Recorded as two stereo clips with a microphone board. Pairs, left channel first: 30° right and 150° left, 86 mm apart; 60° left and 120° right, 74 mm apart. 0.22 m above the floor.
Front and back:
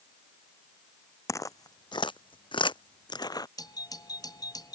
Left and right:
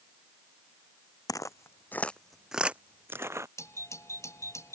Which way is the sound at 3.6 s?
10° left.